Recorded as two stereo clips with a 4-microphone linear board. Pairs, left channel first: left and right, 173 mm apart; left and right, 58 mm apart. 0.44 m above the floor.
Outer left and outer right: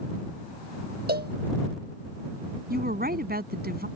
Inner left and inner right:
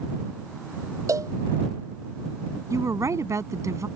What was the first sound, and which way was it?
A cowbell, 65° right (ahead or behind).